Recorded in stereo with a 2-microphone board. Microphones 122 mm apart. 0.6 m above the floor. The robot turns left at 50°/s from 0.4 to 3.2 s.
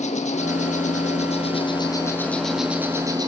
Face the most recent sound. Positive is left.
turn(degrees=-35)